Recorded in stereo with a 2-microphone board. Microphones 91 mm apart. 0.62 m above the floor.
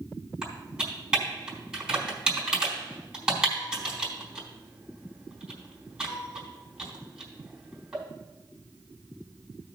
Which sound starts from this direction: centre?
Typing on a keyboard, at 0.4 s.